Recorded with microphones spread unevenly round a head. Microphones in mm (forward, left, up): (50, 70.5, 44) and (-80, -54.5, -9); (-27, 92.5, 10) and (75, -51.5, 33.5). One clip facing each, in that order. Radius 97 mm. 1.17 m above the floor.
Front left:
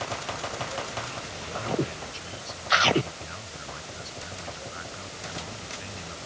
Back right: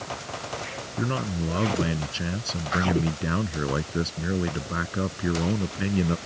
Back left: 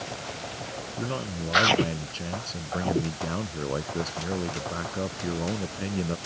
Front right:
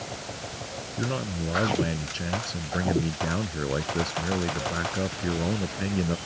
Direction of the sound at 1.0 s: 140° right.